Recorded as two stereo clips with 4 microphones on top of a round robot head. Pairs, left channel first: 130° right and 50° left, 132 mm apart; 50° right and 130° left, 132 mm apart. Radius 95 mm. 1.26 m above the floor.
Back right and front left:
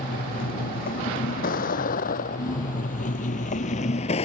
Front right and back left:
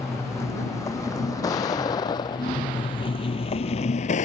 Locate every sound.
0.0 s a vehicle: 120° right; by 4.2 s 85° right